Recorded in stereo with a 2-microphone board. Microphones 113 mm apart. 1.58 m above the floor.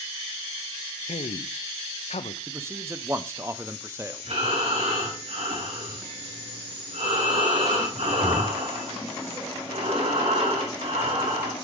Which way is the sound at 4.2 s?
75° right (ahead or behind).